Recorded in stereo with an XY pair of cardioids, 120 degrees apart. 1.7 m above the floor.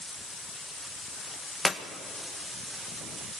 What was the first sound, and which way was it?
A clap, 20° left.